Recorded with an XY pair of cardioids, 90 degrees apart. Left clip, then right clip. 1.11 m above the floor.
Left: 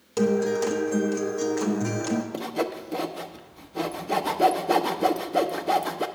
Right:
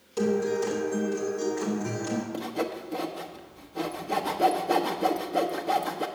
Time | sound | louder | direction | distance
0.2 | a guitar | left 3 dB | 60° left | 1.3 m
2.3 | sawing | left 3 dB | 30° left | 0.7 m